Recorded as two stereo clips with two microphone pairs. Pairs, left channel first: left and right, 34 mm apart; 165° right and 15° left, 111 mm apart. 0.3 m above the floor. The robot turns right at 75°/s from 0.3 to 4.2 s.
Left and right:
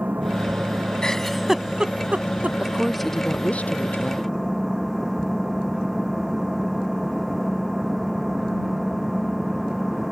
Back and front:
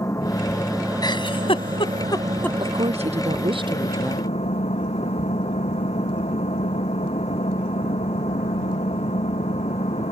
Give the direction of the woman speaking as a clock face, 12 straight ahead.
1 o'clock.